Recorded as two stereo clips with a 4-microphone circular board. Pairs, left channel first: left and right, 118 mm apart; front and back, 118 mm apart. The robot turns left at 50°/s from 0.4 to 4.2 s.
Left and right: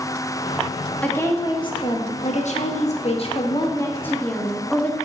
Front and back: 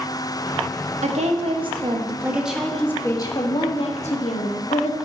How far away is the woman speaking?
About 1.2 m.